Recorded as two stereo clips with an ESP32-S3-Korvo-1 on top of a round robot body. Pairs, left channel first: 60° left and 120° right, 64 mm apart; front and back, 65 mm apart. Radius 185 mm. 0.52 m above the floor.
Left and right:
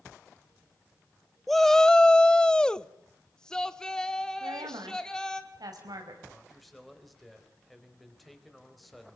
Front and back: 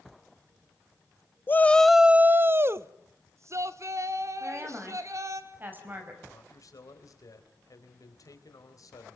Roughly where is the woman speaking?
Behind right.